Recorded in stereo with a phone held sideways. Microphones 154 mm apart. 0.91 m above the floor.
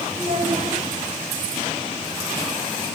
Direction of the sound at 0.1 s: 50° right (ahead or behind).